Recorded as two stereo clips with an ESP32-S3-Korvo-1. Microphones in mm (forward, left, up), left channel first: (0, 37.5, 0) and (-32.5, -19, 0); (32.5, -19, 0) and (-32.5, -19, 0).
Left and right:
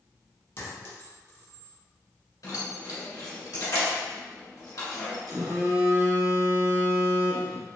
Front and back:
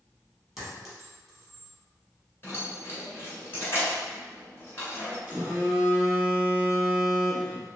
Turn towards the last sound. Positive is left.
turn(degrees=-120)